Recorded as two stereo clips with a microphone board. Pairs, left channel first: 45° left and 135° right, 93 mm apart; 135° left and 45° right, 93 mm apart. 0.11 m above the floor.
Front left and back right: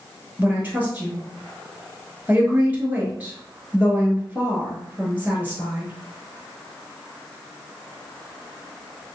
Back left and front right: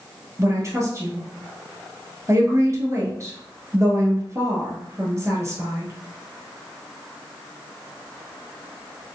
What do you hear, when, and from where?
0.4 s a woman speaking: 75° right, 1.5 m